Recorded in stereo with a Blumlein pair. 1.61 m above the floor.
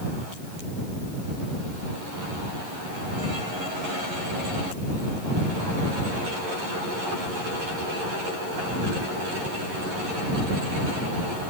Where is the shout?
I don't hear a shout.